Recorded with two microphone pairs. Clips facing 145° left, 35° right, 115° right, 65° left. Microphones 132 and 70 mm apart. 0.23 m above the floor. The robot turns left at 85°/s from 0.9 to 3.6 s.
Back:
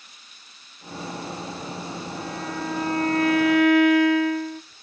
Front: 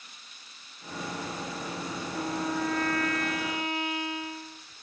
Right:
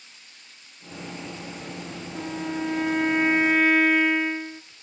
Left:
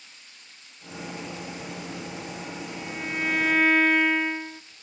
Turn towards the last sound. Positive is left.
turn(degrees=155)